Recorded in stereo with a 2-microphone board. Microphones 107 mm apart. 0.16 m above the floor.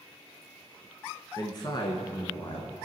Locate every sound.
1.4 s a man speaking: 35° left (ahead or behind), 1.4 m; by 2.8 s 55° left (ahead or behind), 1.7 m